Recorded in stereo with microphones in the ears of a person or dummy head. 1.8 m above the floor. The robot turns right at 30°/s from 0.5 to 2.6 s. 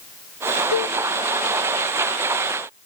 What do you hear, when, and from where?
0.7 s a cowbell: 85° left, 1.9 m; by 0.9 s 80° left, 1.9 m